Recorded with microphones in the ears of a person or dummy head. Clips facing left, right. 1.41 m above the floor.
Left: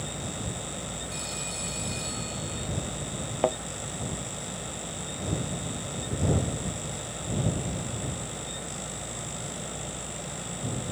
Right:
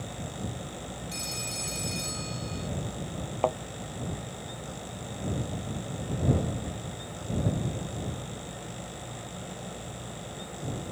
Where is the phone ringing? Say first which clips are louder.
Left 1 dB; 30° right (ahead or behind).